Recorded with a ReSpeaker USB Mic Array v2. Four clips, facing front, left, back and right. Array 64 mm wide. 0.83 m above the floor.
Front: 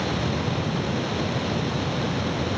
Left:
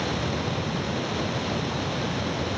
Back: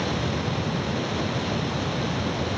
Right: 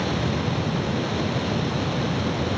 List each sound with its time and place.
Only background noise.